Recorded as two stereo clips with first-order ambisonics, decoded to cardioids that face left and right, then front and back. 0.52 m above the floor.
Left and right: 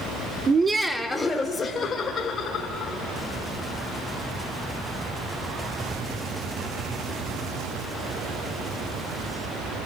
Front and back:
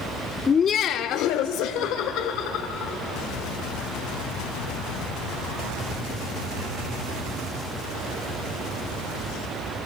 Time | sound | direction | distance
0.5 | laughter | 50° right | 0.8 m